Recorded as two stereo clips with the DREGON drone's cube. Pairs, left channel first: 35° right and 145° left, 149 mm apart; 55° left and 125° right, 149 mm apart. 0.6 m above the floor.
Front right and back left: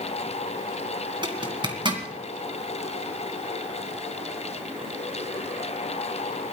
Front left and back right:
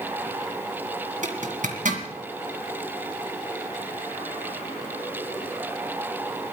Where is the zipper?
155° right, 2 m.